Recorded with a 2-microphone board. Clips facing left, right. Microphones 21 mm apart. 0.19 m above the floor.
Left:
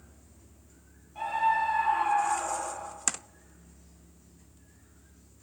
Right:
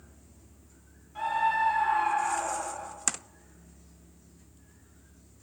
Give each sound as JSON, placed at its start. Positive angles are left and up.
{"t": 1.1, "sound": "a scream", "side_deg": -60, "distance_m": 3.0}